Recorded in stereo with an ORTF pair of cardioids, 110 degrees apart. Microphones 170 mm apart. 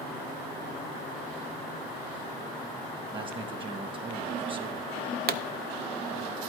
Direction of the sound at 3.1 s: 30° right.